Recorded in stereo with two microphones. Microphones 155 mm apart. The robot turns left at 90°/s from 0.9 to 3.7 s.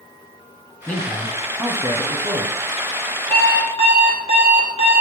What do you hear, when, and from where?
0.9 s a man speaking: 10° left (ahead or behind), 1.2 m; by 2.5 s 20° right (ahead or behind), 1.2 m
3.3 s an alarm clock: 170° left, 1.8 m; by 5.0 s 135° left, 1.8 m